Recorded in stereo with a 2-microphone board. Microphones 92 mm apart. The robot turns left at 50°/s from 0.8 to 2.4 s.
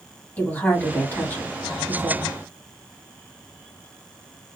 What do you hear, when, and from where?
0.4 s a woman speaking: 20° left (ahead or behind), 1.2 m; by 2.3 s 10° left (ahead or behind), 1.2 m